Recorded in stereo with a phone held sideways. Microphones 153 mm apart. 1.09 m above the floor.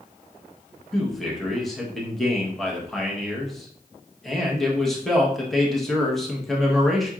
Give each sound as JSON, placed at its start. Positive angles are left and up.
{"t": 0.9, "sound": "a man speaking", "side_deg": 0, "distance_m": 1.1}